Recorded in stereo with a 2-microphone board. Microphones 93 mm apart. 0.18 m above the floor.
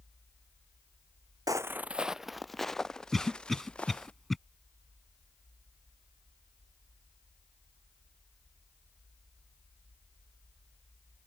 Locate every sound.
1.5 s footsteps: 40° right (ahead or behind); by 4.1 s 15° left (ahead or behind)
3.1 s a cough: centre (ahead or behind)